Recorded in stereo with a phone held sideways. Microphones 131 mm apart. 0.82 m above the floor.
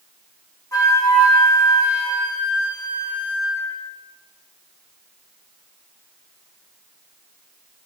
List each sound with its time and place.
0.7 s a flute: 25° left (ahead or behind), 4 m